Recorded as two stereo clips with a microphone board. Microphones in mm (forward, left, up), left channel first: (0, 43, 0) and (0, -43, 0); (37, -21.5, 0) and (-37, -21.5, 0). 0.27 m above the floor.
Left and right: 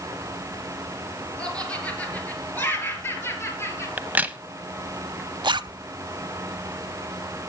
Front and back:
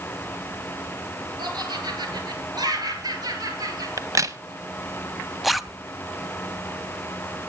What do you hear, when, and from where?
1.4 s laughter: 170° left, 6 m; by 3.9 s 150° left, 6.5 m
4.0 s a crack: 155° right, 0.7 m
5.4 s a zipper: 90° right, 0.6 m